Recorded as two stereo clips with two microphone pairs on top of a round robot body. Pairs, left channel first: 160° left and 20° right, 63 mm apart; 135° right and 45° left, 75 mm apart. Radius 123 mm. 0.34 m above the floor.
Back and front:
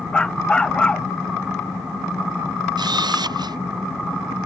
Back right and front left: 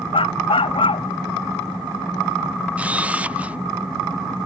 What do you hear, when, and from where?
0.1 s a dog barking: 125° right
2.8 s a camera shutter: 30° right